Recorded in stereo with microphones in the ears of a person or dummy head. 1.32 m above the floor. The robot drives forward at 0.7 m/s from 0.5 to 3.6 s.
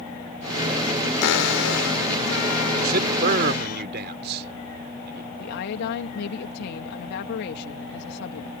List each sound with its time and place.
1.2 s a cupboard door: 80° left; by 3.8 s 60° left (ahead or behind)
2.8 s a man speaking: 55° right (ahead or behind); by 5.3 s 60° right (ahead or behind)
5.4 s a woman speaking: 60° left (ahead or behind)